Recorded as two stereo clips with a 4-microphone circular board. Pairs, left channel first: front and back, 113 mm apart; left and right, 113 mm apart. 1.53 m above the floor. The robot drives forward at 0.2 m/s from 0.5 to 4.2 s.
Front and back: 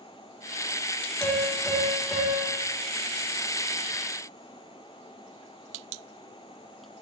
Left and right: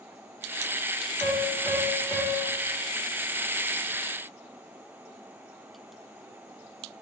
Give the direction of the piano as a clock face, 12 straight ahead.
10 o'clock.